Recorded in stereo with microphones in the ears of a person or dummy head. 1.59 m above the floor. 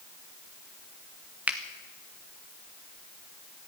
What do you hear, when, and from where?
1.5 s a finger snap: 5° right (ahead or behind), 1.1 m